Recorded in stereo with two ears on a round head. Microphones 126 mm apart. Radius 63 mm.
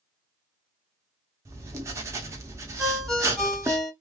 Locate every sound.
1.4 s writing: 20° right (ahead or behind), 0.7 m
2.8 s a ringtone: centre (ahead or behind), 0.9 m